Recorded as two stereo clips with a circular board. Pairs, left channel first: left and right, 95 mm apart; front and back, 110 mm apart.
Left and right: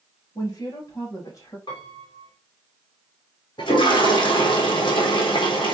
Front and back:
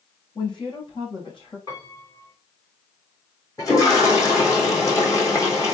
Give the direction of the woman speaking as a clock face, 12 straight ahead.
11 o'clock.